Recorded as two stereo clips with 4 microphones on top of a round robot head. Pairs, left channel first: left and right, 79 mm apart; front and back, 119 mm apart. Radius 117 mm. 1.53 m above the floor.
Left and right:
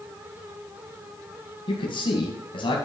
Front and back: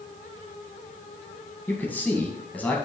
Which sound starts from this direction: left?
A man speaking, at 1.7 s.